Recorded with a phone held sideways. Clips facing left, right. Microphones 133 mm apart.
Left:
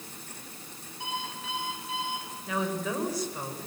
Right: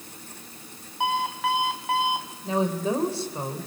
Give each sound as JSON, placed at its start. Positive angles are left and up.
{"t": 1.0, "sound": "an alarm clock", "side_deg": -70, "distance_m": 2.5}
{"t": 2.4, "sound": "a woman speaking", "side_deg": -30, "distance_m": 3.5}